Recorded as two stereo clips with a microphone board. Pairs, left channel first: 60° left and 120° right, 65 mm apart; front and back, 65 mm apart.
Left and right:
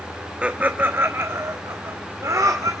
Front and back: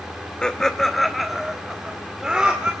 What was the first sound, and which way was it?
Laughter, 65° right.